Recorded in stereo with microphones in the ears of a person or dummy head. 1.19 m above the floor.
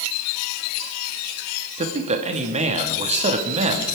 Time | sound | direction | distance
1.8 | a man speaking | 35° right (ahead or behind) | 1.7 m